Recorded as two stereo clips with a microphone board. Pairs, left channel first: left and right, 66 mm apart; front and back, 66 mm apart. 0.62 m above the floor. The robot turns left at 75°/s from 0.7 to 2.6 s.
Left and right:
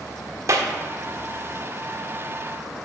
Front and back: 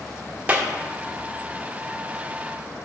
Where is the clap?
120° right, 1.4 m.